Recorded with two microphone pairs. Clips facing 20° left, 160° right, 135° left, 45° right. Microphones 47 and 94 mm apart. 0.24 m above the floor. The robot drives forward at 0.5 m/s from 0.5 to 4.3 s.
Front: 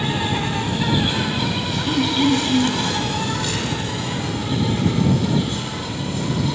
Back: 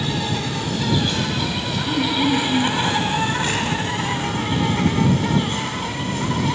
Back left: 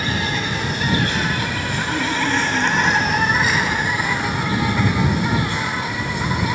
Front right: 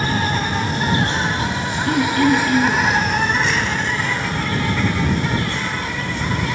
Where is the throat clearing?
40° right, 2.5 m; by 2.9 s 50° right, 2 m.